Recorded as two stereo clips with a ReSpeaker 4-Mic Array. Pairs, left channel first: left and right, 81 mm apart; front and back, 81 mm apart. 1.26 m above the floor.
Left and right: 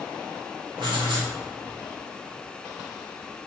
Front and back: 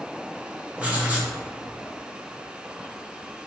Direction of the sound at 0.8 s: 105° right.